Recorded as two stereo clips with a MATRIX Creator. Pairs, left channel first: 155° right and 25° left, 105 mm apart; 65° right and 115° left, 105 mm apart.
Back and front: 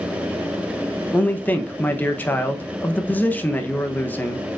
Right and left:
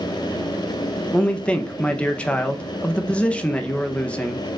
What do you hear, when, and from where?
1.1 s a man speaking: 125° right, 0.6 m